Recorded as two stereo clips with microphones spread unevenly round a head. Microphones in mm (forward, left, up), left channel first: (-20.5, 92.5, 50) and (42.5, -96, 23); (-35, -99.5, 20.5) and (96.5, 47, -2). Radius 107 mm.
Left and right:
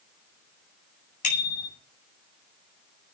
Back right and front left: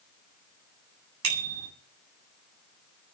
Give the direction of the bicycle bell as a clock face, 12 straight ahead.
10 o'clock.